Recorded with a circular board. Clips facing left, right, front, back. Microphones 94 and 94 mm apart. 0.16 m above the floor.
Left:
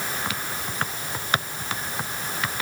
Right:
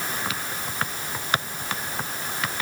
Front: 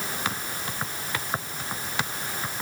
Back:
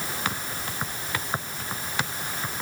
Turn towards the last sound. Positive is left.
No sound to turn to.